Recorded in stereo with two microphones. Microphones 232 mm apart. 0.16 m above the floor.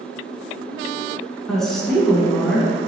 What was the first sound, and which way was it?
A woman speaking, centre (ahead or behind).